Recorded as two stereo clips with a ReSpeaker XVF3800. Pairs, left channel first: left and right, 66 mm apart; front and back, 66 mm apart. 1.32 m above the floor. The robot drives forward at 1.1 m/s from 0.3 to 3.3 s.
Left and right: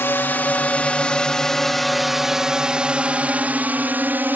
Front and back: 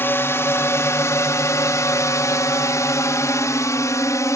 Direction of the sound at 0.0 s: 45° left.